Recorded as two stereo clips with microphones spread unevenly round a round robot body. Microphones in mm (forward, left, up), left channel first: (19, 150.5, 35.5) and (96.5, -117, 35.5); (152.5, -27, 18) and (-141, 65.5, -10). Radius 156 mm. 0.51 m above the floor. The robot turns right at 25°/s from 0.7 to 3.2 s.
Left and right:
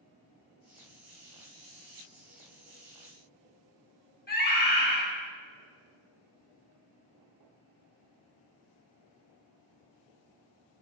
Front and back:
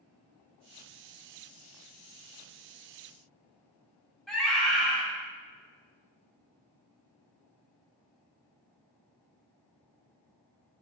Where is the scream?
75° left, 1.5 m.